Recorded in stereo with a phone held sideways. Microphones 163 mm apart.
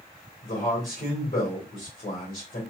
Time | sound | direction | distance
0.4 | a man speaking | 60° left (ahead or behind) | 1.9 m